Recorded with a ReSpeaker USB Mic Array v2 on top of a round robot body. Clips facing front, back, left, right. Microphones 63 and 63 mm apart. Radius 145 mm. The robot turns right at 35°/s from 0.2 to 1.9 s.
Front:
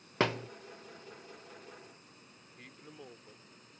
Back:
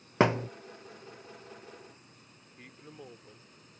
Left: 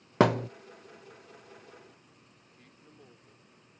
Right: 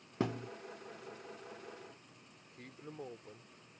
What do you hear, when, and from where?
0.2 s a thud: 110° left; by 0.5 s 120° left
2.6 s a man speaking: 95° right